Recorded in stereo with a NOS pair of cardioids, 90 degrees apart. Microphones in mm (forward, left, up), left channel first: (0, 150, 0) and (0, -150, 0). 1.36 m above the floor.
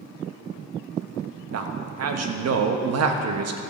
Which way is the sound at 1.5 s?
55° right.